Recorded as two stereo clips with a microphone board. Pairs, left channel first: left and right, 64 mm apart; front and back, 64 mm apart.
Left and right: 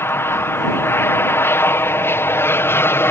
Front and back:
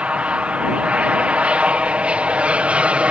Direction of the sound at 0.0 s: 115° left.